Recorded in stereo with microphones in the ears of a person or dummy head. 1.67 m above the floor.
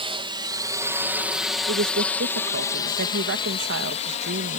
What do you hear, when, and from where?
0.0 s a drone: 25° right (ahead or behind); by 4.6 s 40° left (ahead or behind)
1.7 s a woman speaking: 55° right (ahead or behind)